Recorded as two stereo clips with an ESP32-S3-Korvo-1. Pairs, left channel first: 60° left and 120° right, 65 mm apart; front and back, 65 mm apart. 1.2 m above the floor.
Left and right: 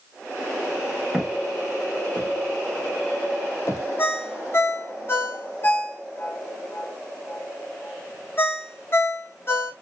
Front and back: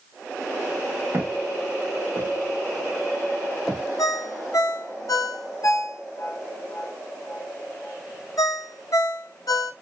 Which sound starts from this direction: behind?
Footsteps, at 1.1 s.